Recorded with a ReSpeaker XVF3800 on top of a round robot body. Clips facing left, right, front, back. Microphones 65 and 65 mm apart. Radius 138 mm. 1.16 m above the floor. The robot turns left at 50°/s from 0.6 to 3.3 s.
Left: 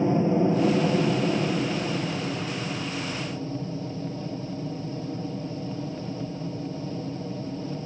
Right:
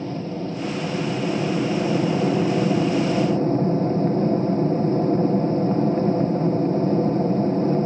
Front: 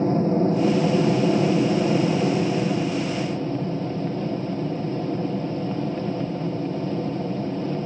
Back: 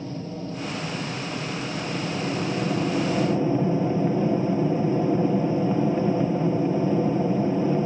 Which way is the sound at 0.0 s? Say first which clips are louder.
Left 6 dB, front 13 dB; 30° left.